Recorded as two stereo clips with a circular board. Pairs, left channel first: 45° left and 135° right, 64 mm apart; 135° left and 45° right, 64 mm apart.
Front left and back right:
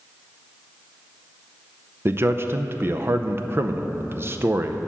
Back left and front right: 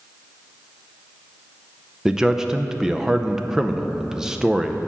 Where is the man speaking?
120° right, 0.5 m.